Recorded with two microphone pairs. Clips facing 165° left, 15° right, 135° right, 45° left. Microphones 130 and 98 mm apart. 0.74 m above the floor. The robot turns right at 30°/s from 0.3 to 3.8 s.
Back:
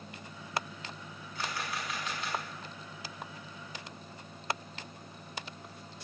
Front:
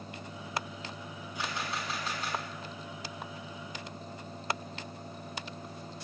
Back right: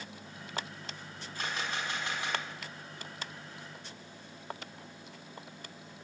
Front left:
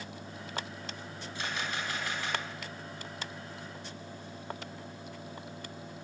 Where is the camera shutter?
90° right, 5 m; by 2.4 s 60° right, 5 m.